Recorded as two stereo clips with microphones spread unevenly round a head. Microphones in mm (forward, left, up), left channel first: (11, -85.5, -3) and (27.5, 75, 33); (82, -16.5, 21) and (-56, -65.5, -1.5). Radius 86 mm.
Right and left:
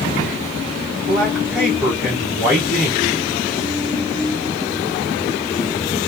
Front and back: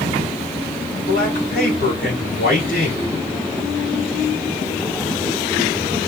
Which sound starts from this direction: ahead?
A man speaking, at 1.0 s.